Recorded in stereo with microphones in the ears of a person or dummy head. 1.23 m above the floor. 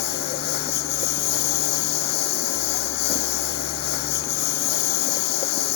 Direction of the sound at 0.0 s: 55° left (ahead or behind).